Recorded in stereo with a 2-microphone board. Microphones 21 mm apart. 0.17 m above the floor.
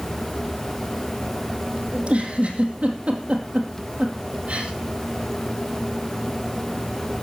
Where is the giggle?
60° right (ahead or behind), 2.5 m.